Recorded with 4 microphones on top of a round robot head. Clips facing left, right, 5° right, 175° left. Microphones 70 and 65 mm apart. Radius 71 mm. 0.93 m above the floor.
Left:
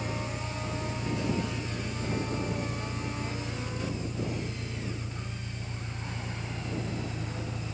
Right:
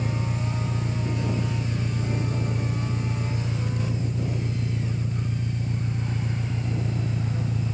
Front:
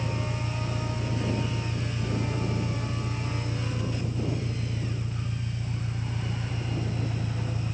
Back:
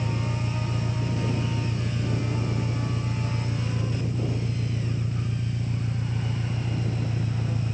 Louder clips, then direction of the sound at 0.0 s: Right 5 dB, back 2 dB; 130° right.